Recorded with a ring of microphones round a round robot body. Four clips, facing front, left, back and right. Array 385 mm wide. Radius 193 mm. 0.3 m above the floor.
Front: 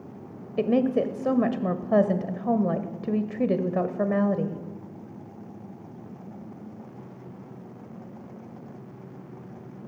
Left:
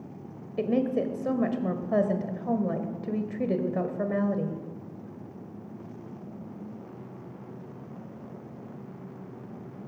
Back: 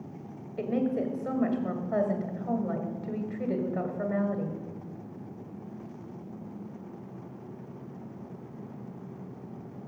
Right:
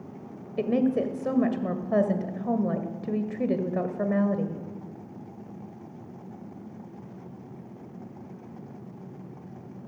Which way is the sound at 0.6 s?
5° right.